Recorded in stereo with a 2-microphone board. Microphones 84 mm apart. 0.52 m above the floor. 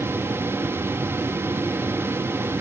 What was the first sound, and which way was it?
Only background noise.